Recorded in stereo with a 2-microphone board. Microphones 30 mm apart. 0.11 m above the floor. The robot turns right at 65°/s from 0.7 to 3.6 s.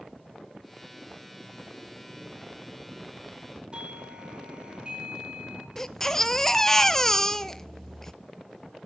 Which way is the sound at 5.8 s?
15° left (ahead or behind).